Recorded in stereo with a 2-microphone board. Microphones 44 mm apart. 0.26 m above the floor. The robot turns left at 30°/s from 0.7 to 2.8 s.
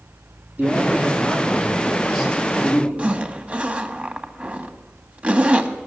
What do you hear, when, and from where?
0.6 s a man speaking: 145° right, 7.5 m; by 2.9 s 155° left, 7.5 m
3.0 s a zipper: 30° right (ahead or behind), 1.8 m